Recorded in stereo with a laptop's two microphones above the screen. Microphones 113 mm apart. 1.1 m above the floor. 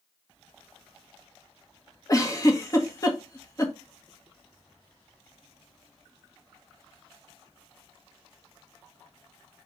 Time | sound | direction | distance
2.1 | a giggle | 30° left (ahead or behind) | 1.7 m